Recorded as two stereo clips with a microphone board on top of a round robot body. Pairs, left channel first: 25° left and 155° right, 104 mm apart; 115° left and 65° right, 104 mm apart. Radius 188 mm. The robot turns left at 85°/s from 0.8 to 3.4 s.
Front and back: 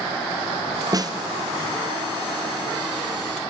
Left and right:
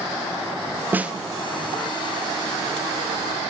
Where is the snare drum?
130° right, 1.7 m; by 1.1 s 145° right, 1.7 m.